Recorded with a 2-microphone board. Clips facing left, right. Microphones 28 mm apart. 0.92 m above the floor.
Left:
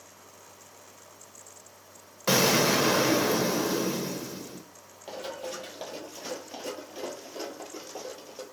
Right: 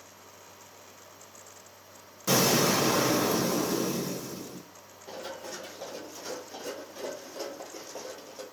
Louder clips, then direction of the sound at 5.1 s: Left 3 dB; 50° left (ahead or behind).